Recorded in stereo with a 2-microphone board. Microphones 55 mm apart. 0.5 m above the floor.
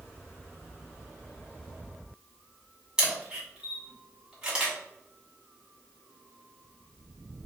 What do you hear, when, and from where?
3.0 s a camera shutter: 15° right (ahead or behind), 1.8 m